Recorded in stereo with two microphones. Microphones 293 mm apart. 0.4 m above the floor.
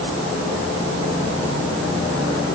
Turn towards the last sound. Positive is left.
No sound to turn to.